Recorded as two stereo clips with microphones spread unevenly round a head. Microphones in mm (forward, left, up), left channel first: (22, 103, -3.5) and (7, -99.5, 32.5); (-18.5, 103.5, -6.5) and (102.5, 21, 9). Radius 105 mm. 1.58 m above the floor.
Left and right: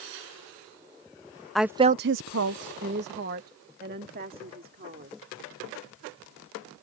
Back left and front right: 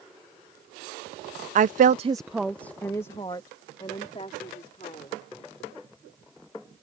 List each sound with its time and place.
1.6 s a woman speaking: 5° right; by 5.2 s 145° right